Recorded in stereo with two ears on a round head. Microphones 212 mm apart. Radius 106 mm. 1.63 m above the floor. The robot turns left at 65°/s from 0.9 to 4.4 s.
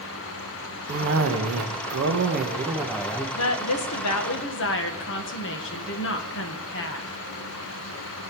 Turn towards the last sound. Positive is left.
turn(degrees=55)